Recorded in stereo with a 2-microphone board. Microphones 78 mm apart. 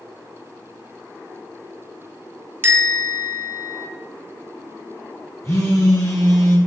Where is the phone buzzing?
40° left (ahead or behind), 3 m.